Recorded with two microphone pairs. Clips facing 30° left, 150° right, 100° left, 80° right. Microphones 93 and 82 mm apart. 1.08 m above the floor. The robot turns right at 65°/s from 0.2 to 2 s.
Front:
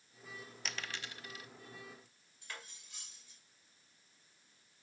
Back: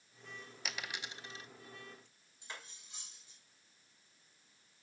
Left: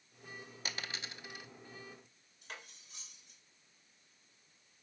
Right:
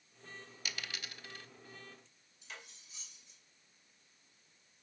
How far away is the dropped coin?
About 0.5 m.